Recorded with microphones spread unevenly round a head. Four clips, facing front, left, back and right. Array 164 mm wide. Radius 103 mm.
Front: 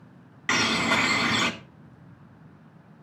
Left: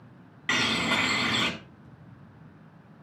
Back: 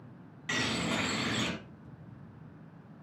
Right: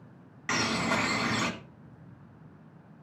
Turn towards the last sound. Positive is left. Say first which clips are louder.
# left 1 dB, front 8 dB
turn(degrees=10)